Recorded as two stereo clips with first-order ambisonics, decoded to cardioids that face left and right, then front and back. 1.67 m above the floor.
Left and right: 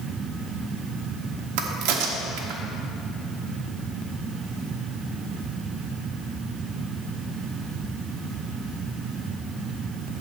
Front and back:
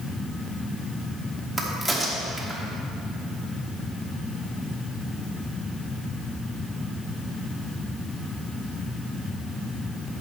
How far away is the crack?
About 1.1 m.